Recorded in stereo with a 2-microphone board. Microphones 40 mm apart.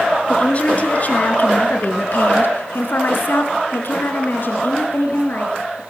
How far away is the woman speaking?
About 4.5 m.